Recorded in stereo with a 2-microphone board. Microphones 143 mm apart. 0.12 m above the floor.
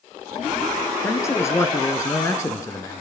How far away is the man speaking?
About 1.5 m.